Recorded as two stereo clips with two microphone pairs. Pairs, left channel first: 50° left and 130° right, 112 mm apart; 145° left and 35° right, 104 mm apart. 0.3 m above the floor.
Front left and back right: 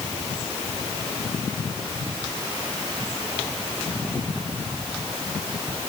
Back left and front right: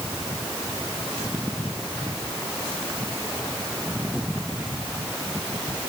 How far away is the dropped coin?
No dropped coin in this recording.